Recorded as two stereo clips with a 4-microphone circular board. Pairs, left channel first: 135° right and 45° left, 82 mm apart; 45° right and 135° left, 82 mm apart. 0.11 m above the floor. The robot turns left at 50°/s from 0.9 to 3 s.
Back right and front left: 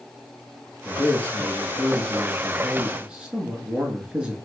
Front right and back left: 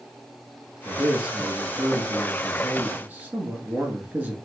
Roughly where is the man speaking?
Behind right.